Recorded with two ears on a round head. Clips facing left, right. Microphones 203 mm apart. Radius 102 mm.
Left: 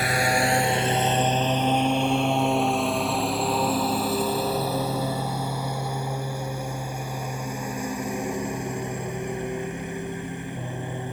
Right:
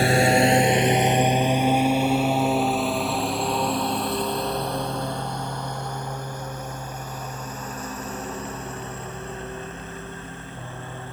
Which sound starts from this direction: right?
A lawn mower, at 0.0 s.